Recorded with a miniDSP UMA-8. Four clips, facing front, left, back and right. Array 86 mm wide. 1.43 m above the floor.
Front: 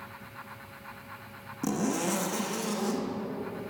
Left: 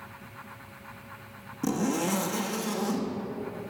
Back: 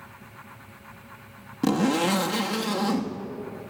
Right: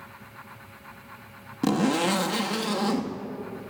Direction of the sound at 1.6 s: 130° right.